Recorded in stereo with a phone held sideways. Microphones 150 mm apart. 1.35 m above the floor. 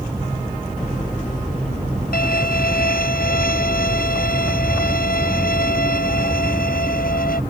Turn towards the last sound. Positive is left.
turn(degrees=85)